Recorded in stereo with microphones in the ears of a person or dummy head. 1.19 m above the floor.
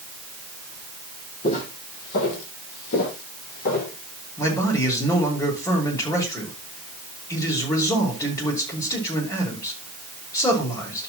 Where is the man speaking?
15° left (ahead or behind), 5 m.